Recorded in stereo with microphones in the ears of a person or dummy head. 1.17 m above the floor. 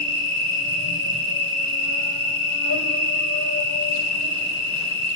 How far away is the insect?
About 4 m.